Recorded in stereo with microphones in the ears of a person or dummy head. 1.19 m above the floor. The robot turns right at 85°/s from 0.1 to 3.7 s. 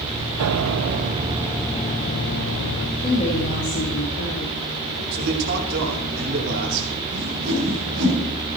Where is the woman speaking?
20° left, 1.8 m; by 5.0 s 80° left, 1.8 m.